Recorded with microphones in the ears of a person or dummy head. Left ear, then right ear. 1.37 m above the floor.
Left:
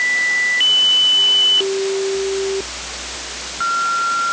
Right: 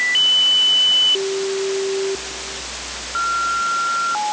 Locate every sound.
Only background noise.